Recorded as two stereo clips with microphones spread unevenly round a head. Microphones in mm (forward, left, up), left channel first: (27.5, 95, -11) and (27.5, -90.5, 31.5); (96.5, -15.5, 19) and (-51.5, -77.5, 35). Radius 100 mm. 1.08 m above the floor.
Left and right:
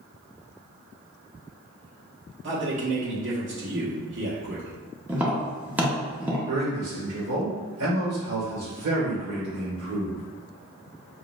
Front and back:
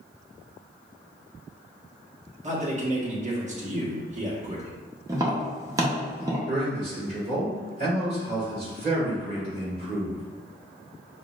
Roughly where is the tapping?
Behind right.